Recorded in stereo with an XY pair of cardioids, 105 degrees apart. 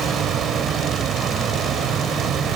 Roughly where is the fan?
Right.